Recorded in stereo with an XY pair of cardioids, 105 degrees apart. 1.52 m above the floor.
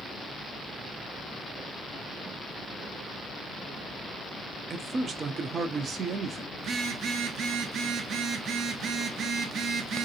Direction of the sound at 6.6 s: 60° right.